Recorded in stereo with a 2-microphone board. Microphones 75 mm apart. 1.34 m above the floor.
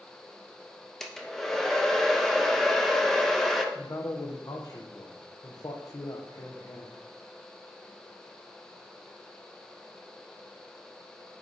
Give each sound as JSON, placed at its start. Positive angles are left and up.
{"t": 1.0, "sound": "a hair dryer", "side_deg": 5, "distance_m": 0.9}
{"t": 3.8, "sound": "a man speaking", "side_deg": 50, "distance_m": 1.0}